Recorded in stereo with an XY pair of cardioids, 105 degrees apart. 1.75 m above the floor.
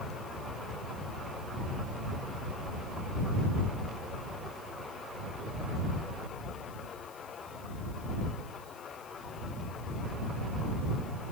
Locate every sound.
Only background noise.